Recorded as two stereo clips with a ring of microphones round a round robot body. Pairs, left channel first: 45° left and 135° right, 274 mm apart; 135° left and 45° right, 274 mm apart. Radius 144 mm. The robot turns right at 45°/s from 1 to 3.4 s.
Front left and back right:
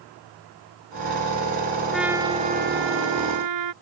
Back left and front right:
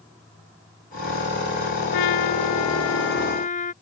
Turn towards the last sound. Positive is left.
turn(degrees=-160)